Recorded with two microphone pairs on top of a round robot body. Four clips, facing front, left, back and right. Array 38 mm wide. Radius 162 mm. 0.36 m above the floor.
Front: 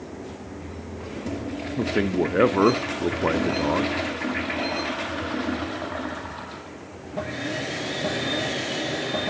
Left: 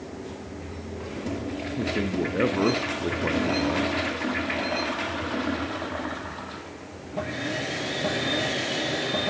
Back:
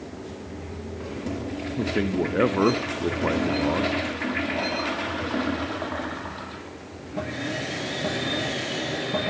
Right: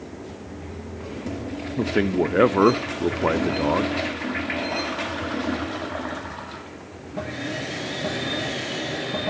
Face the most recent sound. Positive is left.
turn(degrees=-70)